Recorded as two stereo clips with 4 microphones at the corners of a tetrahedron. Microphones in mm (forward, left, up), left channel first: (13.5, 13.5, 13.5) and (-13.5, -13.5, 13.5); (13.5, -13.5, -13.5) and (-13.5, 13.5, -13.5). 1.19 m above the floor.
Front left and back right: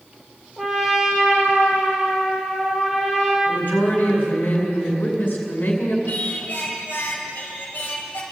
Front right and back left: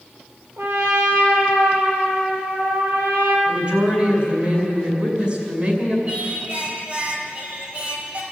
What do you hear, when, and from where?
0.6 s a trumpet: 140° left, 6.5 m
3.5 s a woman speaking: 75° left, 5.5 m
6.1 s singing: 85° left, 4.5 m